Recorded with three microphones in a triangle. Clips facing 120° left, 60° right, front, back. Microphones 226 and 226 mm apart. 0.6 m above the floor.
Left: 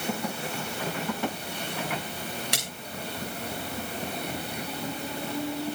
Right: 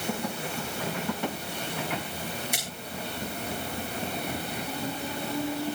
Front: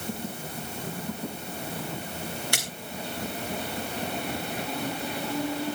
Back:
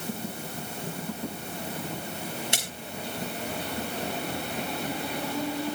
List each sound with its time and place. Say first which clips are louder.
2.5 s a splash: left 1 dB, even; 110° left, 8.5 m